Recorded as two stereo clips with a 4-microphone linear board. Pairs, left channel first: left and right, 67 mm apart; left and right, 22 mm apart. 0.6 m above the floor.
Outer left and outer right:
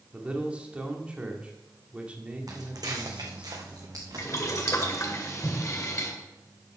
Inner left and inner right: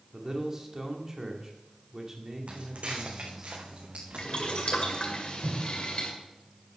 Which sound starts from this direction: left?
Boiling, at 4.2 s.